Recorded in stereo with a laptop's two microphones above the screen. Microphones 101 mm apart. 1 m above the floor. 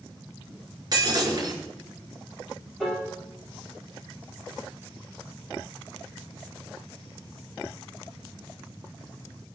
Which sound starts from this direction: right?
Breaking glass, at 0.9 s.